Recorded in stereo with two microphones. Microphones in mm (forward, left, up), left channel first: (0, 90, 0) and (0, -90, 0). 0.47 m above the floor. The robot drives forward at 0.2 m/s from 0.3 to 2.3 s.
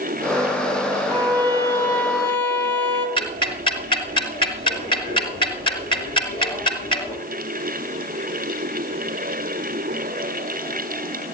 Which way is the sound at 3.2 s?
30° left (ahead or behind).